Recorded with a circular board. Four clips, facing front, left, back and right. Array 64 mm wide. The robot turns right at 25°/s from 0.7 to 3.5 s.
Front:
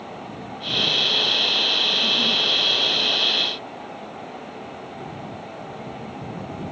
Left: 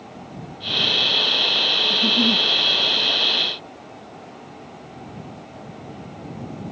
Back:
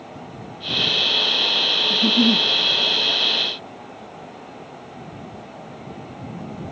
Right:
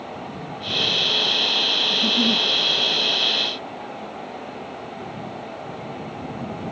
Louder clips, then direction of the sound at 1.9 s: Left 1 dB, back 6 dB; 160° left.